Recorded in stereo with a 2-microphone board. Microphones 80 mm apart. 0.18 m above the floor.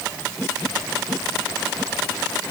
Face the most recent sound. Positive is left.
No sound to turn to.